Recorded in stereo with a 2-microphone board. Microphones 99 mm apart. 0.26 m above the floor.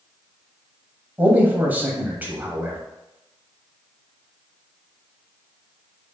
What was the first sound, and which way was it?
A man speaking, 20° right (ahead or behind).